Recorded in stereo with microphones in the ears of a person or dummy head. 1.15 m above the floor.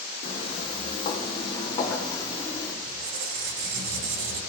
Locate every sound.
0.2 s footsteps: 45° left (ahead or behind), 3 m; by 2.7 s 20° left (ahead or behind), 4.5 m
2.8 s a squeak: 70° right (ahead or behind), 2 m